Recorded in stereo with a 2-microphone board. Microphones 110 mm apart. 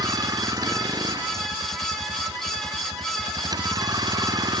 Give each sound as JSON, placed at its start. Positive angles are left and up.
{"t": 0.0, "sound": "a vehicle", "side_deg": -35}